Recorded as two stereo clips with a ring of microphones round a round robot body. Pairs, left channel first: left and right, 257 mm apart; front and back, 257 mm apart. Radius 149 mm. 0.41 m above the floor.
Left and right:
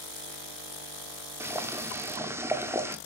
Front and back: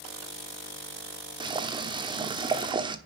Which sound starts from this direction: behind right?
Boiling, at 1.4 s.